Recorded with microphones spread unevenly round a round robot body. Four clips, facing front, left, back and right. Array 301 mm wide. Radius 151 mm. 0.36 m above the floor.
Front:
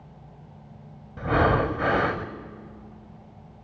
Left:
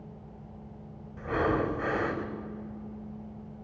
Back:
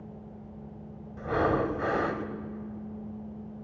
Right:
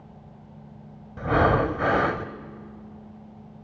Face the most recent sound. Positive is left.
turn(degrees=-60)